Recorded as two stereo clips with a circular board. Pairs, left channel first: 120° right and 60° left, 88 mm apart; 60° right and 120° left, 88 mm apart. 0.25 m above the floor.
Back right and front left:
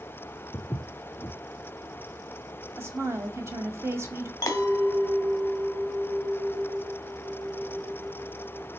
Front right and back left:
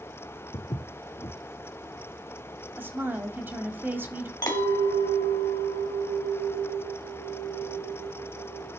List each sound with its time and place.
0.5 s footsteps: 65° right, 0.9 m
2.8 s a woman speaking: 75° left, 1.1 m
4.4 s a clink: 80° right, 1.5 m